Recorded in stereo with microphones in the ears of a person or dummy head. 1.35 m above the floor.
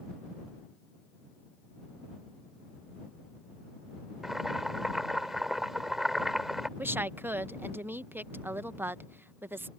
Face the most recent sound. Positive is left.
turn(degrees=-10)  # may be behind; listen again after turning